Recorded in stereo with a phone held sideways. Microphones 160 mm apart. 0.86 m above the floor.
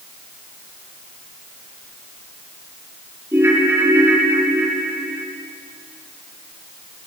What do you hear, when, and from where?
3.3 s a ringtone: 15° right (ahead or behind), 3.5 m